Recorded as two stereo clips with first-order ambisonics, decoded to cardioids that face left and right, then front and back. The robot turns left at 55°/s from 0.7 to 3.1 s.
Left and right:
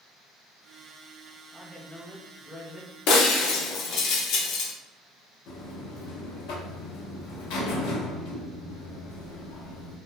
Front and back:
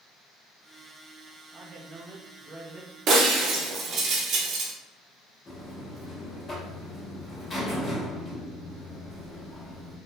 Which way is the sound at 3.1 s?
130° left.